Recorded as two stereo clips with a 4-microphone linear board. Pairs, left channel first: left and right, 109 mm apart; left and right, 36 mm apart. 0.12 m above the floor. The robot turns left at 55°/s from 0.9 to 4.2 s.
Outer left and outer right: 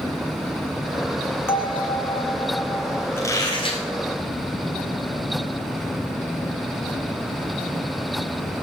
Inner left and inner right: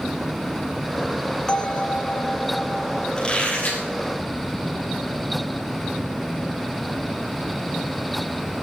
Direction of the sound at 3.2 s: 160° left.